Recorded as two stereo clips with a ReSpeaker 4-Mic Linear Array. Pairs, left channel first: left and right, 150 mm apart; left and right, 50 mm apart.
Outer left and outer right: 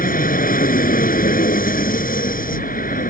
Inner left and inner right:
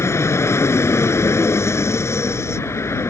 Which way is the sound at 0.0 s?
70° left (ahead or behind).